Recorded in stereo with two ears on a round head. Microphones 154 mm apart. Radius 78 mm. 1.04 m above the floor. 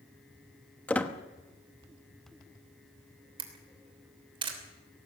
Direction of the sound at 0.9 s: 10° left (ahead or behind).